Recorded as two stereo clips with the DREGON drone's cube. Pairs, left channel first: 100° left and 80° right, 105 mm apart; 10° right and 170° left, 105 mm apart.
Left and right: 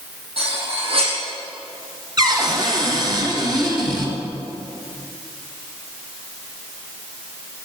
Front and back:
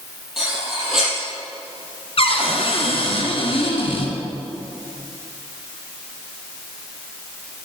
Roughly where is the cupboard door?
Ahead right.